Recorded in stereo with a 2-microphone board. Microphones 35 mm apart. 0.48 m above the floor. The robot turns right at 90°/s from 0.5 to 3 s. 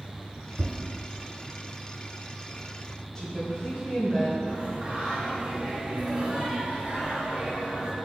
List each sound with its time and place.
0.6 s tapping: 45° right (ahead or behind), 1.4 m; by 0.8 s 60° right (ahead or behind), 1.4 m
3.1 s a woman speaking: 10° left (ahead or behind), 1.8 m
4.5 s singing: 35° right (ahead or behind), 1.9 m